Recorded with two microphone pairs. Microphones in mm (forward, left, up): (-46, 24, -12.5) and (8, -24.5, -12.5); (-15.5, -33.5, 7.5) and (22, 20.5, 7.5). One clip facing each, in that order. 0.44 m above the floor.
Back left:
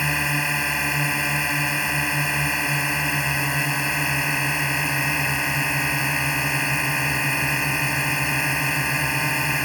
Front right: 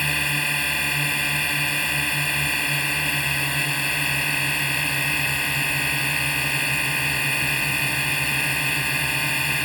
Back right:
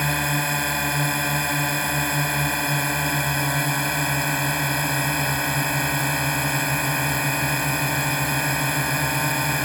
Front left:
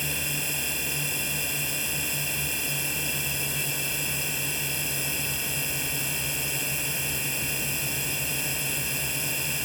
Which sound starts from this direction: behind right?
A drone, at 0.0 s.